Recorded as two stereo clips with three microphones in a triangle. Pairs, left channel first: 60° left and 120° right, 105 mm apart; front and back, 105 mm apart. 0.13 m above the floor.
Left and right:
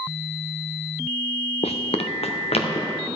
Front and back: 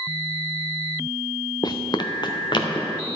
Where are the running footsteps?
50° left, 0.5 m; by 3.1 s 45° left, 1.8 m.